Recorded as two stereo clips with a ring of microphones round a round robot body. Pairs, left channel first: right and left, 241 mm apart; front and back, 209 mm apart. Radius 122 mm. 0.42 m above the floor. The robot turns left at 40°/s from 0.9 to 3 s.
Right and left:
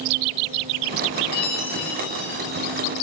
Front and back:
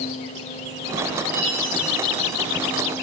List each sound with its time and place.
1.3 s a chime: 95° right, 8 m; by 2.9 s 160° right, 8 m